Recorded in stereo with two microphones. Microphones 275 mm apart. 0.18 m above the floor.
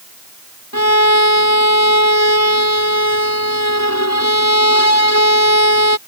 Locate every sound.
0.7 s a violin: 75° left (ahead or behind)